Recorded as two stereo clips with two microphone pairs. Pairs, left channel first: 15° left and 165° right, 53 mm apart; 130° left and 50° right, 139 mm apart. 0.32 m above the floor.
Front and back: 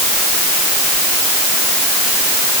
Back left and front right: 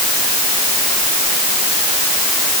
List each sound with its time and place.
Only background noise.